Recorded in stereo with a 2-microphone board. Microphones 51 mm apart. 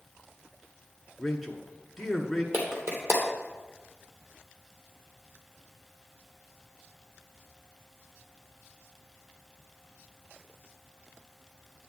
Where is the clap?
50° right (ahead or behind), 2.5 m.